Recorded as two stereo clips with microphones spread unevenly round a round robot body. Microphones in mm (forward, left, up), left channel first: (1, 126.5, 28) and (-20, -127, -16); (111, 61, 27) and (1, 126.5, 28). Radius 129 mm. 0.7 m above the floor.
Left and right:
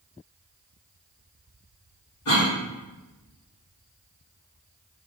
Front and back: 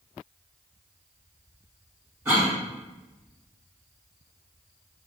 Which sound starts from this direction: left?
A cough, at 2.2 s.